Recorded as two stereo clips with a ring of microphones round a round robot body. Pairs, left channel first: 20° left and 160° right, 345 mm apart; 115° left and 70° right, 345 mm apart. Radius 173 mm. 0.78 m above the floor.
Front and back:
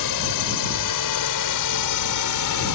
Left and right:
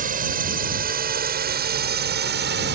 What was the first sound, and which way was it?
A drone, straight ahead.